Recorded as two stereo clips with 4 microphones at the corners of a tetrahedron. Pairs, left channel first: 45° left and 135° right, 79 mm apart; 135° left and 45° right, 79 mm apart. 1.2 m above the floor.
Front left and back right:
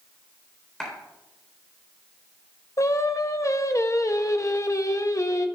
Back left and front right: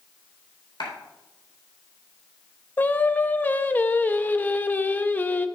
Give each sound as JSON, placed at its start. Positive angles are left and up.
{"t": 0.8, "sound": "a clap", "azimuth_deg": 125, "distance_m": 3.5}
{"t": 2.8, "sound": "singing", "azimuth_deg": 75, "distance_m": 0.6}